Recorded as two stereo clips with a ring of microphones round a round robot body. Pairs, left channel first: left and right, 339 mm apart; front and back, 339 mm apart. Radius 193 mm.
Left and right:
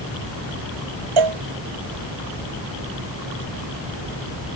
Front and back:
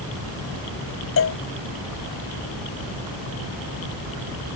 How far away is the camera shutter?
No camera shutter in this recording.